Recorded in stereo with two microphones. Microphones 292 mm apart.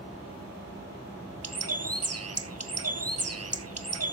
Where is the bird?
60° right (ahead or behind), 1.0 m.